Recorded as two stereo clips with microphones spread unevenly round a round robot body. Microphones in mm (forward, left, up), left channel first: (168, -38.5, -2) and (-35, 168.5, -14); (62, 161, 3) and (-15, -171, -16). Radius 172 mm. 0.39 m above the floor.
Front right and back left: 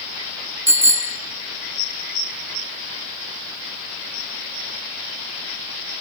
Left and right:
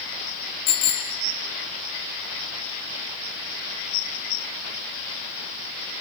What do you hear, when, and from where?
0.7 s a bicycle bell: 50° left, 5 m